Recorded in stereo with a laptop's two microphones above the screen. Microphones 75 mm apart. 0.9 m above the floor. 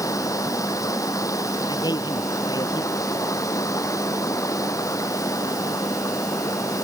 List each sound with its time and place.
0.0 s running water: 45° left (ahead or behind)
1.7 s a man speaking: 60° left (ahead or behind)